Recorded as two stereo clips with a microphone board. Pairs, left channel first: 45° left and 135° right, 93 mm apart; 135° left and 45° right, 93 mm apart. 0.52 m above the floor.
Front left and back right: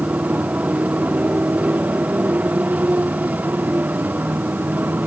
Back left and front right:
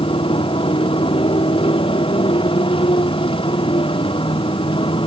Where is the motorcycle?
150° left; by 5.1 s 155° left.